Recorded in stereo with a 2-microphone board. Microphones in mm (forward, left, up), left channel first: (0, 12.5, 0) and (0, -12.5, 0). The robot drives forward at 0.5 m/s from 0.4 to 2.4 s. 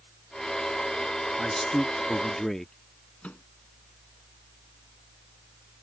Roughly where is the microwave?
Left.